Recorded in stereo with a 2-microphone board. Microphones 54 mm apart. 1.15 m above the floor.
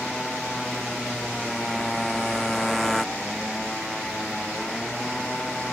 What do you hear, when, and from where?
0.0 s a motorcycle: 5° left (ahead or behind)